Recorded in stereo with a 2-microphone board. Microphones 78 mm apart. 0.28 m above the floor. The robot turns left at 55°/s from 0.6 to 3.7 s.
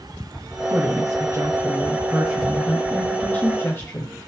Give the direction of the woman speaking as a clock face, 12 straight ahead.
2 o'clock.